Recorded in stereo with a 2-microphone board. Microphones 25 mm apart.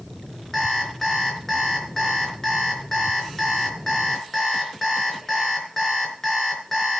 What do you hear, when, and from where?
0.5 s an alarm clock: 15° left (ahead or behind), 4 m